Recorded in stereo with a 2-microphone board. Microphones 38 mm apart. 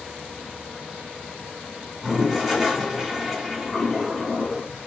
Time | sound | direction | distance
2.0 | a toilet flushing | 5° right (ahead or behind) | 1.4 m